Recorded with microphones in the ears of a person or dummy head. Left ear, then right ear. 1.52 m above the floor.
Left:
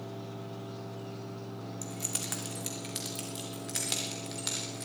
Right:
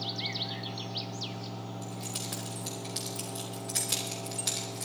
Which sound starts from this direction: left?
Keys jangling, at 1.8 s.